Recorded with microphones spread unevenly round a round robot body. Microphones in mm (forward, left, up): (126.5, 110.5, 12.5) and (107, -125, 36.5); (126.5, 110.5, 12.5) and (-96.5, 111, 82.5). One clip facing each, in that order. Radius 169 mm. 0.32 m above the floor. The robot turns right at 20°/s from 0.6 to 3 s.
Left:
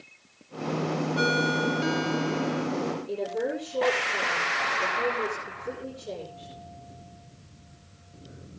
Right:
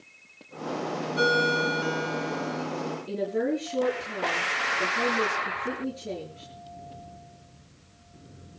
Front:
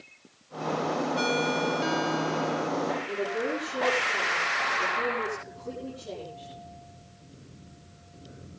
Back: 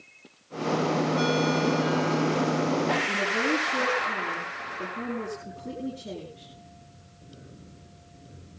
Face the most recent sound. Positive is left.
turn(degrees=-130)